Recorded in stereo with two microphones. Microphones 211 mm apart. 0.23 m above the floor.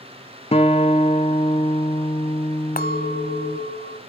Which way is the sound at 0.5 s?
30° left (ahead or behind).